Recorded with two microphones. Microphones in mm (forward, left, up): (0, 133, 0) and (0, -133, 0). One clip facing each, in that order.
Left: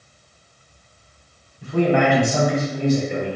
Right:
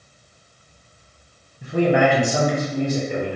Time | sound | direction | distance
1.6 | a man speaking | 15° right (ahead or behind) | 1.1 m